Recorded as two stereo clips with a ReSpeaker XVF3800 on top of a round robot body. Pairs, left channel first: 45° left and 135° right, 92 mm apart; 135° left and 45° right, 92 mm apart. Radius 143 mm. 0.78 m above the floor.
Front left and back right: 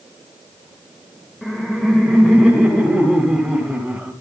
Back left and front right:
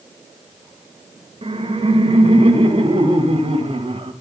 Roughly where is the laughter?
Ahead right.